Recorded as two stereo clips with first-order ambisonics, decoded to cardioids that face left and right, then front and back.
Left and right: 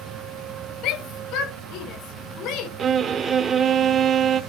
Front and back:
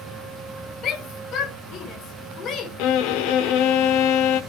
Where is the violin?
20° right, 1.2 m.